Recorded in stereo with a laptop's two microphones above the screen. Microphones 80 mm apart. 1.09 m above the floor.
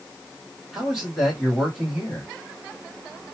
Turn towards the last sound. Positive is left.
turn(degrees=0)  # may be behind; listen again after turning